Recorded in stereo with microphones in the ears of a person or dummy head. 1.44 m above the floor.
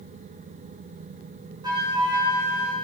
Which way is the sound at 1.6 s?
25° right (ahead or behind).